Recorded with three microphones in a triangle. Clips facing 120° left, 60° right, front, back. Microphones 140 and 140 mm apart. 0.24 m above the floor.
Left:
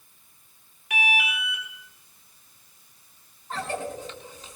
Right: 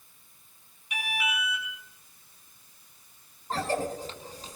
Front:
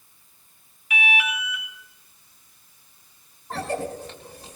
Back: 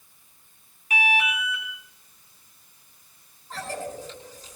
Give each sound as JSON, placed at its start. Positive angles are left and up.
{"t": 0.9, "sound": "an alarm", "azimuth_deg": 125, "distance_m": 4.5}
{"t": 3.5, "sound": "a cough", "azimuth_deg": -10, "distance_m": 2.0}